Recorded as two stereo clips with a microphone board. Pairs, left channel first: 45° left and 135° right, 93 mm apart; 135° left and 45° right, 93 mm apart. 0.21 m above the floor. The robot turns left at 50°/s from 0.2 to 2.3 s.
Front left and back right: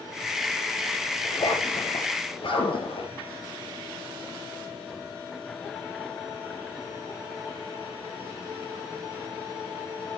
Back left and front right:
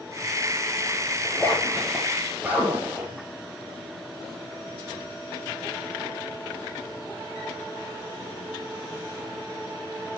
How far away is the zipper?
About 4 m.